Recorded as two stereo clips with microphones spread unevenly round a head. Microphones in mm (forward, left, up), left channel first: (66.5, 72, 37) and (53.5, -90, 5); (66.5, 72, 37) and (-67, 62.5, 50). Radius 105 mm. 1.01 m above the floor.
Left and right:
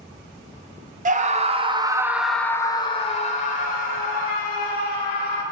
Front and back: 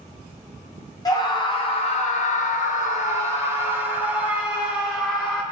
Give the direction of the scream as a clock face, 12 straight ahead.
2 o'clock.